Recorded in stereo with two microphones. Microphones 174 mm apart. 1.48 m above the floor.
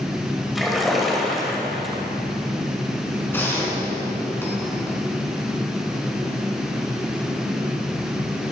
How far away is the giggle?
No giggle in this recording.